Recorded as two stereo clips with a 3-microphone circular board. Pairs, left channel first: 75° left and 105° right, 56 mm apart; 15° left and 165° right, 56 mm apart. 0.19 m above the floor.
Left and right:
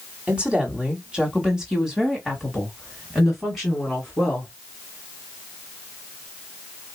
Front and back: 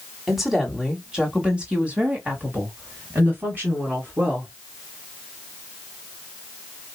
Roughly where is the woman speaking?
Right.